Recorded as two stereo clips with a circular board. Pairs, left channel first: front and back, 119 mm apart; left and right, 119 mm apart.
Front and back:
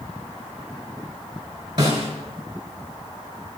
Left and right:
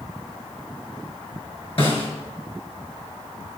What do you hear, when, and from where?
1.8 s a snare drum: 130° left, 6 m